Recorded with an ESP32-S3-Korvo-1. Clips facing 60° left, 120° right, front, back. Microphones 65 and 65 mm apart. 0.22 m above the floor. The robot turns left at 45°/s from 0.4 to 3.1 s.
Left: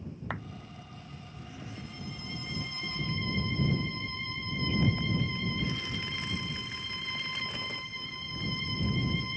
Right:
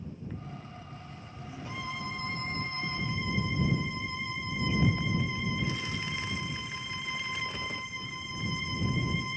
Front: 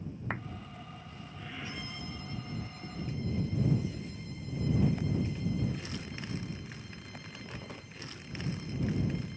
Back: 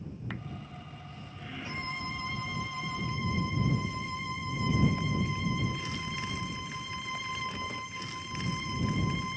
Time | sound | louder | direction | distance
0.3 | a clap | left 10 dB, front 5 dB | 55° left | ?
1.6 | a violin | right 9 dB, back 6 dB | 130° right | ?